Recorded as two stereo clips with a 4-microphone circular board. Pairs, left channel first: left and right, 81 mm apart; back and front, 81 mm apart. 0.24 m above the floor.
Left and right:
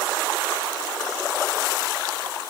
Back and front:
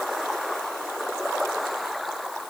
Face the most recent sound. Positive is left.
No sound to turn to.